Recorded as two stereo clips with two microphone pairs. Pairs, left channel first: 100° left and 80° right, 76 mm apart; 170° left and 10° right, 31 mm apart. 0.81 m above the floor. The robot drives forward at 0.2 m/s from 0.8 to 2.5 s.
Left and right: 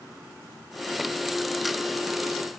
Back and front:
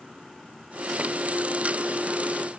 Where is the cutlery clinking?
I don't hear cutlery clinking.